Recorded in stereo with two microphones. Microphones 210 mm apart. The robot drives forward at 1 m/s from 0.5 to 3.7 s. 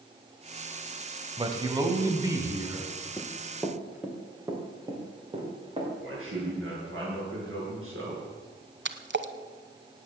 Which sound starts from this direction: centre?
Running footsteps, at 3.2 s.